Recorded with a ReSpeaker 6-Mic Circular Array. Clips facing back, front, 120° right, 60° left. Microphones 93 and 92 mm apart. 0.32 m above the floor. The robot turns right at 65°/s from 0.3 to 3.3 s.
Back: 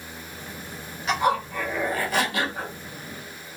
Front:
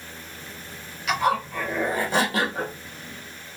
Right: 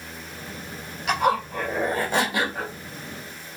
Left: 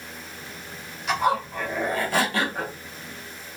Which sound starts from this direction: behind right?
A zipper, at 1.1 s.